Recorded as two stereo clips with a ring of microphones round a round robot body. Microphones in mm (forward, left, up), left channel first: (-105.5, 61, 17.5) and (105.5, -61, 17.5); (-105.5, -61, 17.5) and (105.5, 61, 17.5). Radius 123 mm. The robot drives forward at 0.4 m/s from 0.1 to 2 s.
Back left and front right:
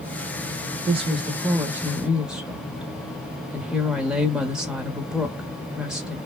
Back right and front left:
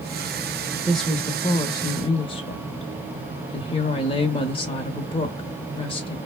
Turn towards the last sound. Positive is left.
turn(degrees=-115)